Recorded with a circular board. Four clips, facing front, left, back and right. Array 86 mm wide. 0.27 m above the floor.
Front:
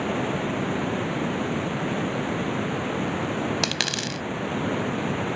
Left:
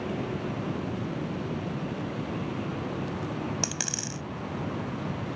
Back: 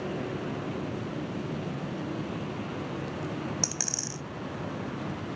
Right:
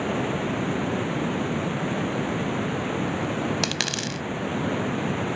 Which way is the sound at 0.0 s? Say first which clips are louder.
Right 6 dB, front 7 dB; 40° right.